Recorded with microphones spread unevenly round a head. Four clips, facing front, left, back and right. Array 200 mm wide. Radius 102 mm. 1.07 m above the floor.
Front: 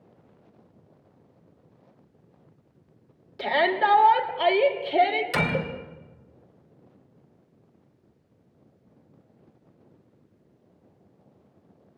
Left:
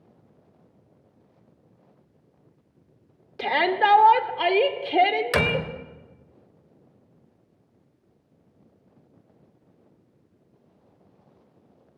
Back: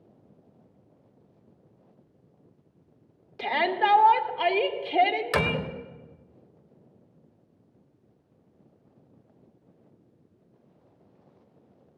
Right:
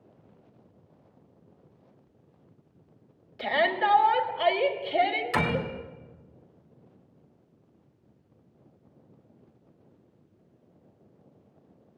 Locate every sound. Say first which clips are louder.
3.4 s a shout: left 4 dB, front 2 dB; 80° left, 3.5 m
5.3 s a door slam: left 3 dB, even; 115° left, 3 m